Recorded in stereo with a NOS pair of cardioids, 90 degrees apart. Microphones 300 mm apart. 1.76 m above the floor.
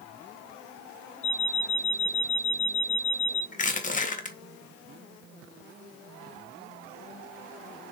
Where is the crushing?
25° left, 1.8 m.